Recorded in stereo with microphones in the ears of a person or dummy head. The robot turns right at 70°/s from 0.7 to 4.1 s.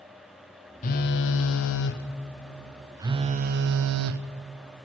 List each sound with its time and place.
0.8 s a phone buzzing: 45° left, 0.9 m; by 4.2 s 85° right, 0.9 m